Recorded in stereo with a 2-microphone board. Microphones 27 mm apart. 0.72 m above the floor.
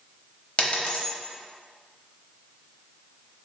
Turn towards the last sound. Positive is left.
turn(degrees=45)  # may be behind; listen again after turning